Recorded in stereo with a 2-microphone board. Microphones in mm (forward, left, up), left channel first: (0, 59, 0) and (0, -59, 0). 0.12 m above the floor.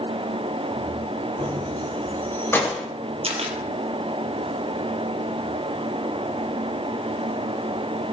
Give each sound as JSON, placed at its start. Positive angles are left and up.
{"t": 1.4, "sound": "keys jangling", "side_deg": 10, "distance_m": 6.0}
{"t": 3.2, "sound": "a camera shutter", "side_deg": -55, "distance_m": 3.0}